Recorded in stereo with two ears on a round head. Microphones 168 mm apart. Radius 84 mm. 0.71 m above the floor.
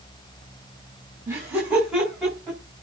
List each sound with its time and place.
1.3 s laughter: 15° right (ahead or behind), 5.5 m; by 2.6 s centre (ahead or behind), 7 m